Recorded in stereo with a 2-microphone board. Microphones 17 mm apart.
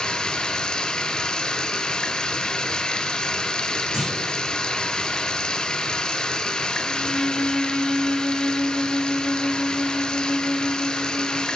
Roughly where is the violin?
Left.